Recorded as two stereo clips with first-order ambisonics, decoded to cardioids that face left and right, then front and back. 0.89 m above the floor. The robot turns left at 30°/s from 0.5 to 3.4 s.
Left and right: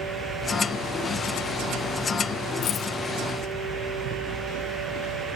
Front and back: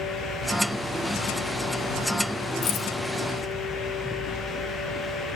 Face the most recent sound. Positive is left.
turn(degrees=20)